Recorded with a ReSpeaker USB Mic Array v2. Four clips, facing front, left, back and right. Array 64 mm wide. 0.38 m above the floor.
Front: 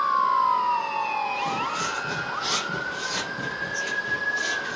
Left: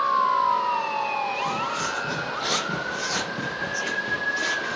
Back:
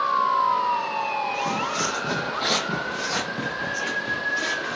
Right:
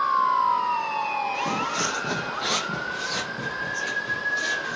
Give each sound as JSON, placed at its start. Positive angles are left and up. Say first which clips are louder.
{"t": 1.3, "sound": "footsteps", "louder": "even, back 1 dB", "azimuth_deg": -115, "distance_m": 0.8}